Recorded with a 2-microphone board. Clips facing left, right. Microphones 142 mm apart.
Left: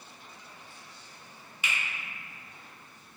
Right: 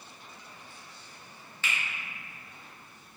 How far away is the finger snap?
About 0.5 m.